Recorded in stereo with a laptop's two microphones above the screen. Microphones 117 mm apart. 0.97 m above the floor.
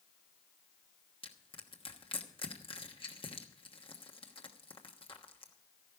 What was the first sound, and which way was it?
Crushing, 50° left (ahead or behind).